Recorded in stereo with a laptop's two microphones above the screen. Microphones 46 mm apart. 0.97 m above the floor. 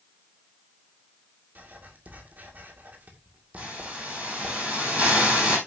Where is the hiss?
30° right (ahead or behind), 5.5 m.